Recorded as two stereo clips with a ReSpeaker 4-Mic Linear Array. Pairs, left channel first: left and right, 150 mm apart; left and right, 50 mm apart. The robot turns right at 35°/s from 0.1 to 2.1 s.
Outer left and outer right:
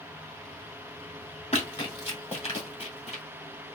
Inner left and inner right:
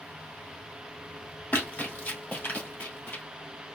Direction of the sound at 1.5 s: 45° left (ahead or behind).